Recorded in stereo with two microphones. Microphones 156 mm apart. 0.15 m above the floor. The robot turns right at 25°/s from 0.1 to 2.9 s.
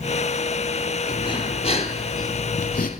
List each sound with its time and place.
1.1 s breathing: 25° left, 0.6 m; by 2.9 s 70° left, 0.6 m